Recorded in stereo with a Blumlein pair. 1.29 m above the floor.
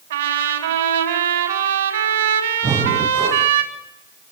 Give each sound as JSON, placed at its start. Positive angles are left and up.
{"t": 0.1, "sound": "a trumpet", "azimuth_deg": -60, "distance_m": 6.5}
{"t": 2.6, "sound": "breathing", "azimuth_deg": -20, "distance_m": 2.0}